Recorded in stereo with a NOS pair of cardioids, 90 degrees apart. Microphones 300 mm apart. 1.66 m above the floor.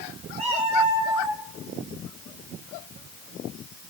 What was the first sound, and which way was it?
A cat meowing, 25° right.